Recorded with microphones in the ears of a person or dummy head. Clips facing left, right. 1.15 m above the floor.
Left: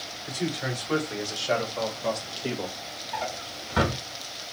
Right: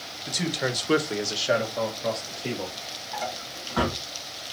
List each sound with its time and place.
0.3 s a man speaking: 75° right (ahead or behind), 1.3 m; by 2.8 s 10° left (ahead or behind), 1.9 m
3.1 s a drawer: 35° left (ahead or behind), 1.8 m